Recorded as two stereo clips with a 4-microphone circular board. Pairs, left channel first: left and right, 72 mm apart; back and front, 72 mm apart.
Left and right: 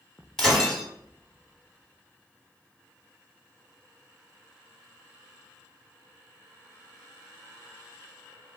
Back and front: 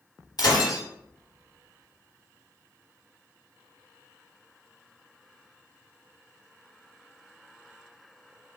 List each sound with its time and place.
0.4 s breaking glass: 170° left, 1.1 m